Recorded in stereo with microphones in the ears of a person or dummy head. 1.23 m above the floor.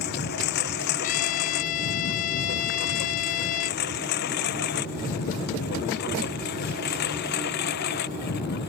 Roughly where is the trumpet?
Left.